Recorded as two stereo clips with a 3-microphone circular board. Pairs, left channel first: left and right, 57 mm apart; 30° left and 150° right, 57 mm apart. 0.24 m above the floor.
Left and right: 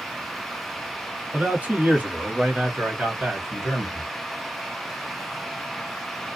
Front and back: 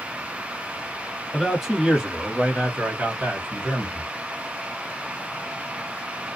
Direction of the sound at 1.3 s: 60° right.